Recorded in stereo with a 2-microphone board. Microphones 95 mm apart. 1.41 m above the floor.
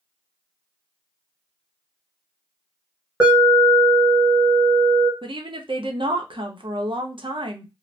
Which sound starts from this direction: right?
A woman speaking, at 5.2 s.